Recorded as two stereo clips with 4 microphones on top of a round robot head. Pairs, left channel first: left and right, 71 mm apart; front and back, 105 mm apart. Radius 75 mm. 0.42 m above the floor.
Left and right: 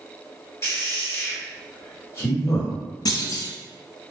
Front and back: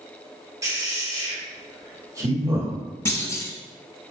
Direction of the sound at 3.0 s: 65° left.